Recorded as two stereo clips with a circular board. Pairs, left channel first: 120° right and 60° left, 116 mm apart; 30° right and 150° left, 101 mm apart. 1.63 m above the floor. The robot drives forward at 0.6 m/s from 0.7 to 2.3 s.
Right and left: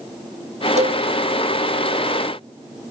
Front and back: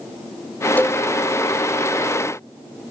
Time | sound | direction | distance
0.8 | a cowbell | 45° left | ?